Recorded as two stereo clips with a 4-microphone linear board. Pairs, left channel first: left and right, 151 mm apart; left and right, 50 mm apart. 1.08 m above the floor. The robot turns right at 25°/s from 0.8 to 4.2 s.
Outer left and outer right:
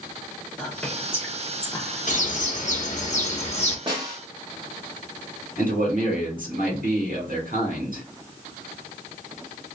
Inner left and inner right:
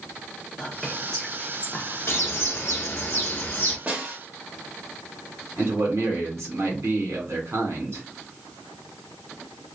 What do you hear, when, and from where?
0.6 s whispering: 5° left (ahead or behind), 0.7 m; by 2.5 s 40° left (ahead or behind), 0.7 m
2.1 s a bird: 85° left, 0.9 m; by 3.8 s 125° left, 0.9 m
3.9 s a snare drum: 30° right (ahead or behind), 1.2 m; by 4.2 s 25° right (ahead or behind), 1.2 m
5.6 s a man speaking: 65° right (ahead or behind), 1.7 m